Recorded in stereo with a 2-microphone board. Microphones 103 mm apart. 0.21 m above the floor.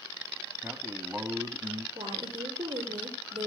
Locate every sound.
0.6 s a man speaking: 15° right (ahead or behind), 1.5 m
1.9 s a woman speaking: 40° right (ahead or behind), 6 m